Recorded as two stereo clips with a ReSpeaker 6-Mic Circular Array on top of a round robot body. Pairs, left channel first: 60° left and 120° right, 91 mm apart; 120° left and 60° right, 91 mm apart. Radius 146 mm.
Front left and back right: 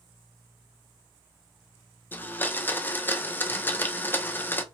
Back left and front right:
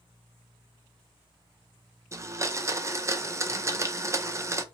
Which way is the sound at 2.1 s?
5° right.